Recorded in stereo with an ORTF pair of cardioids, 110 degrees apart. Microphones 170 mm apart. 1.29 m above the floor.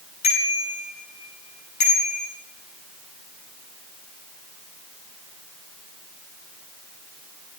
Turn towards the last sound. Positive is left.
turn(degrees=45)